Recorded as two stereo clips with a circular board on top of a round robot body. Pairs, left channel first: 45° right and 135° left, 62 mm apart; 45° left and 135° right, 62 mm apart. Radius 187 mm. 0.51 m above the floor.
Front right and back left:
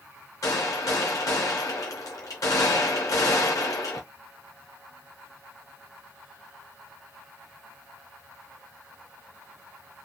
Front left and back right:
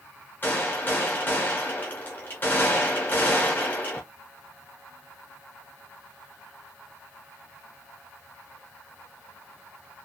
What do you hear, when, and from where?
0.4 s a gunshot: 10° right, 0.6 m